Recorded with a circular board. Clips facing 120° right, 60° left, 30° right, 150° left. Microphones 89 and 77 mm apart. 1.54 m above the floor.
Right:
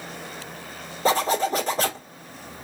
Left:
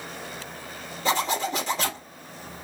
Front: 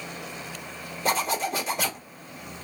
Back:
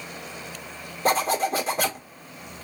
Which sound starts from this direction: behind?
A zipper, at 1.1 s.